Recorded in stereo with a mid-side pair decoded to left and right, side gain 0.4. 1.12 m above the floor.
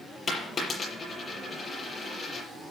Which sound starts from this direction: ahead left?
A dropped coin, at 0.3 s.